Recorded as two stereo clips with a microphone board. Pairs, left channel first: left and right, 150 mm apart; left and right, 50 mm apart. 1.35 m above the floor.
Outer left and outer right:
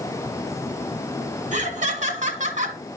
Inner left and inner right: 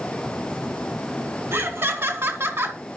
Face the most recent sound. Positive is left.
turn(degrees=-55)  # may be behind; listen again after turning